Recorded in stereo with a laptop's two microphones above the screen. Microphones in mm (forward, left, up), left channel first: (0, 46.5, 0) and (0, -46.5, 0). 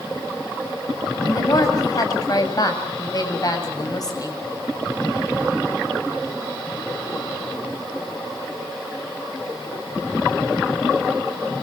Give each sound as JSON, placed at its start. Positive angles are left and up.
{"t": 1.3, "sound": "a woman speaking", "side_deg": 45, "distance_m": 8.0}